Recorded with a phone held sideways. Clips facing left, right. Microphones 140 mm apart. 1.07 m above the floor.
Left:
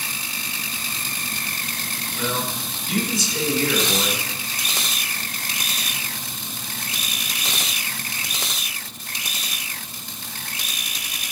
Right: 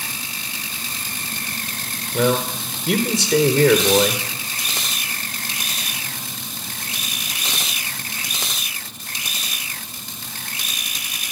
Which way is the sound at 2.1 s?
75° right (ahead or behind).